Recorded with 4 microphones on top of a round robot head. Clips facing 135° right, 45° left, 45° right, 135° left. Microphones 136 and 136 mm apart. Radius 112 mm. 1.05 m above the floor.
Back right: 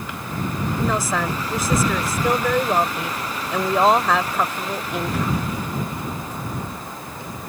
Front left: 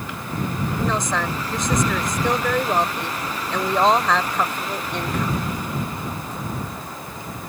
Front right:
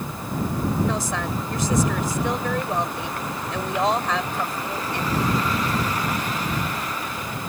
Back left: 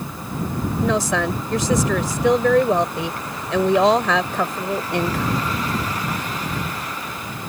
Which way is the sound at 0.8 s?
140° left.